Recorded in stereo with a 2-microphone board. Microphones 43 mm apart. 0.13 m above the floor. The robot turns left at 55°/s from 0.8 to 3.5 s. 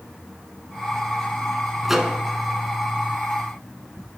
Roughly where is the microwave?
Centre.